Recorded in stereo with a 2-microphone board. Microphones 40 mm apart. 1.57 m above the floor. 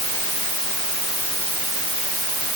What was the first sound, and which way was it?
Only background noise.